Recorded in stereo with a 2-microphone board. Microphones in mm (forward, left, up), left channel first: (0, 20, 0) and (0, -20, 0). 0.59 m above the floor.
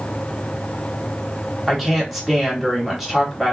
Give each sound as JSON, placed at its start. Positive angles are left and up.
{"t": 1.7, "sound": "a woman speaking", "side_deg": -5, "distance_m": 1.5}